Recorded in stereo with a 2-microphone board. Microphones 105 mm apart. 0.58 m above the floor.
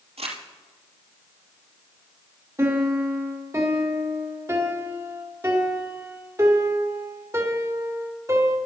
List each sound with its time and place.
0.2 s crumpling: 80° right, 3 m
2.6 s a piano: 30° right (ahead or behind), 1.5 m